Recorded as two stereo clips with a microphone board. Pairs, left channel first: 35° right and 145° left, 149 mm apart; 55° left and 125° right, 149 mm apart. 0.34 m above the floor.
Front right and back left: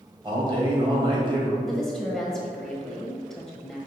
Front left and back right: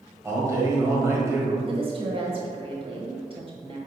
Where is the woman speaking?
120° right, 1.3 m.